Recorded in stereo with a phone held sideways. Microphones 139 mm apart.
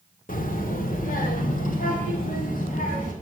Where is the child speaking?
80° left, 1.6 m.